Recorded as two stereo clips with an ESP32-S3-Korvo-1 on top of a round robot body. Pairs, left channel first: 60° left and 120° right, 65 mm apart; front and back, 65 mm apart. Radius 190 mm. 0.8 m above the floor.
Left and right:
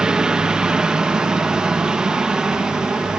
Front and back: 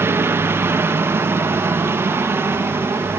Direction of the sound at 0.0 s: 170° left.